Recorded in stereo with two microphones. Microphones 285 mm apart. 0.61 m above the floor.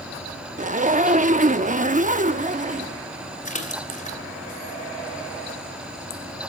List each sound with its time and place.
0.6 s a zipper: 30° right (ahead or behind), 0.6 m
3.5 s a splash: 25° left (ahead or behind), 2.5 m